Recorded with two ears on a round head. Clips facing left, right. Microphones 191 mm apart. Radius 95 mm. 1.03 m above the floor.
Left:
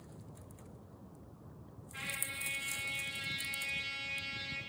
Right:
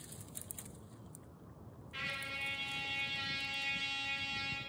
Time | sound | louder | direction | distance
1.9 | a trumpet | right 2 dB | 45° right (ahead or behind) | 2 m